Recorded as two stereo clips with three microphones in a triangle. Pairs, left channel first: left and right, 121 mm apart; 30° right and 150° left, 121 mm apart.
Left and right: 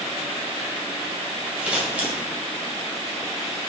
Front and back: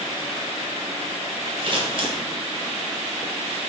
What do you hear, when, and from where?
1.6 s scissors: 170° right, 2 m